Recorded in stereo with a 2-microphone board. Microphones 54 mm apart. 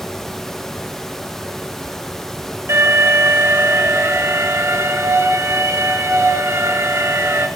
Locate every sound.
2.7 s an alarm: 55° right (ahead or behind), 6.5 m